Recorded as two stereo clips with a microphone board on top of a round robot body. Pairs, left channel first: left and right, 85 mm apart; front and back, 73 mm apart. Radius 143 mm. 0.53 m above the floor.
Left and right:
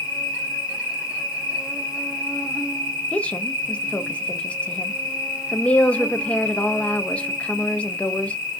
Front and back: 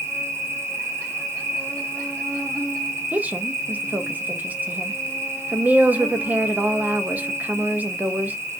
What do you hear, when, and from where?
0.0 s an insect: 165° right, 1.6 m
3.1 s a woman speaking: 150° left, 0.6 m